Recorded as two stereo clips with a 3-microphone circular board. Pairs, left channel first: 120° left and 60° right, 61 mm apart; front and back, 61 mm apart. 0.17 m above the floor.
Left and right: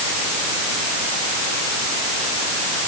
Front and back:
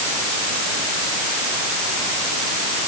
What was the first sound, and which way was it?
Only background noise.